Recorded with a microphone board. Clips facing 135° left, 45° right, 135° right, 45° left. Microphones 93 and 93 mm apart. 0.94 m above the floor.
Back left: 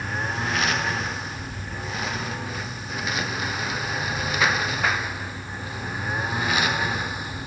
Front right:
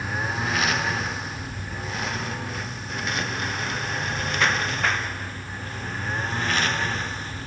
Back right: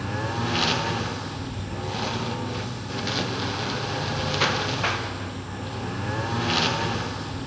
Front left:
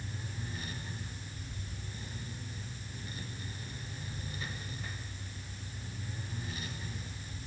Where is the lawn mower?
135° right; by 7.5 s 145° right.